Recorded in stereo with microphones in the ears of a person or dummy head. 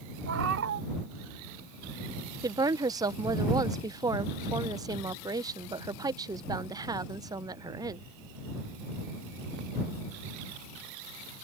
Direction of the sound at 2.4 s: 10° right (ahead or behind).